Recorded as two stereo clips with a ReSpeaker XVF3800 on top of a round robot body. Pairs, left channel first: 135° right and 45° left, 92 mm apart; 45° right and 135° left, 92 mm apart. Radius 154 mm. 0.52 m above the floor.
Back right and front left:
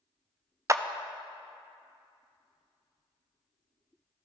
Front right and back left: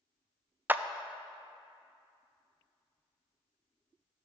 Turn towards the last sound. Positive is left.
turn(degrees=75)